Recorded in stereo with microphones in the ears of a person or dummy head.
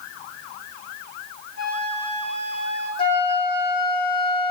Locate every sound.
1.6 s a flute: 85° left, 7.5 m
3.0 s a flute: 35° left (ahead or behind), 3.5 m